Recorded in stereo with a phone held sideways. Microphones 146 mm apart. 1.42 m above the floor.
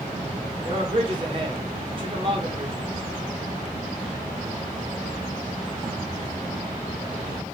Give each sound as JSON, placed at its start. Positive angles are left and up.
{"t": 0.7, "sound": "a man speaking", "side_deg": -35, "distance_m": 1.0}